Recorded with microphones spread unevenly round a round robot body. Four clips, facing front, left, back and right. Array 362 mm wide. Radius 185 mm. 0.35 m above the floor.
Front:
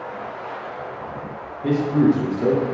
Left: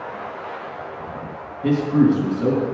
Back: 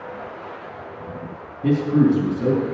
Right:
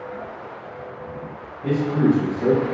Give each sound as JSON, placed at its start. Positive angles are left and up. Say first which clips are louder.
{"t": 1.6, "sound": "a man speaking", "louder": "left 3 dB, even", "azimuth_deg": 160, "distance_m": 3.5}